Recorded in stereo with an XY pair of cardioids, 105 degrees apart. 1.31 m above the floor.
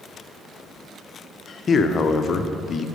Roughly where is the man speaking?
Ahead left.